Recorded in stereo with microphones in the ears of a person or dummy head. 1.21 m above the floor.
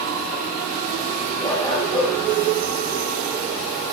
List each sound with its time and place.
1.4 s a dog barking: 20° left (ahead or behind), 8.5 m